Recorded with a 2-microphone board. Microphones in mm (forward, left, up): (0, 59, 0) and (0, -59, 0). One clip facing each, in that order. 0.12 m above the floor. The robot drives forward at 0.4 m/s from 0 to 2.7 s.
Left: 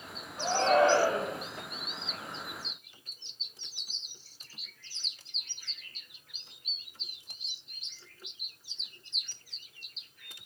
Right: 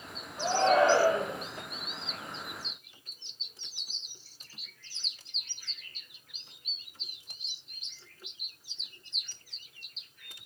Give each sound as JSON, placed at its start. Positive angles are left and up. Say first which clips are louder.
{"t": 0.4, "sound": "a shout", "louder": "right 1 dB", "side_deg": -5, "distance_m": 3.5}